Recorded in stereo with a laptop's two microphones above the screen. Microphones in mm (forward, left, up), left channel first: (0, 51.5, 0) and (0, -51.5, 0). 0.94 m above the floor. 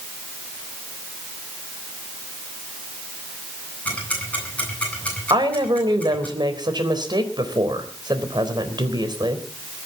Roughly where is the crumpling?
No crumpling in this recording.